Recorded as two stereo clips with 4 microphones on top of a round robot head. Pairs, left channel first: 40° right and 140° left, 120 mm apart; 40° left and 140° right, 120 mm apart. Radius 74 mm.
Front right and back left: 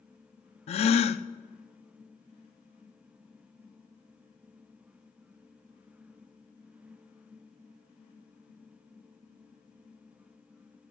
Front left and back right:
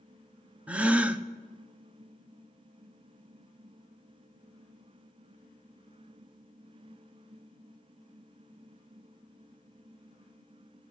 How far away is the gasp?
About 0.6 m.